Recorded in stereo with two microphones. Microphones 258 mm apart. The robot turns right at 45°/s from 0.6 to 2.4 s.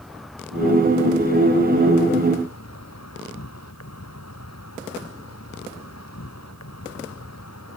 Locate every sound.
0.0 s an insect: straight ahead; by 7.8 s 80° left